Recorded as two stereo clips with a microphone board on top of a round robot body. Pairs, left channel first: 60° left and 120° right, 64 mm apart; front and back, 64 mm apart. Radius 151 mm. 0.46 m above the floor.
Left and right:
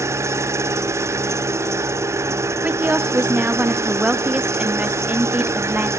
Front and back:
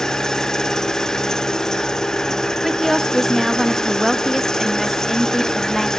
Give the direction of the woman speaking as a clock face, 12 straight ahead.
3 o'clock.